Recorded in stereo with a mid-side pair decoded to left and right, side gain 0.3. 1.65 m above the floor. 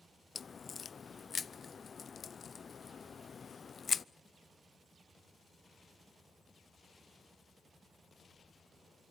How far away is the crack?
About 0.5 m.